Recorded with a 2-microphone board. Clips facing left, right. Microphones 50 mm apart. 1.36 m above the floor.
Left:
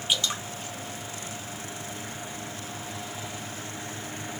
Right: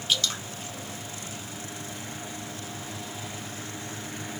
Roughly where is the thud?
No thud in this recording.